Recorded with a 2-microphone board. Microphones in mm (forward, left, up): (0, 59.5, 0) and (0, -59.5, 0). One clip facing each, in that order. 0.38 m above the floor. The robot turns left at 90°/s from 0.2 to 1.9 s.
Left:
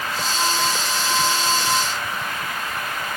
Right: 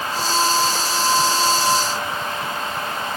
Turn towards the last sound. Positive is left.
No sound to turn to.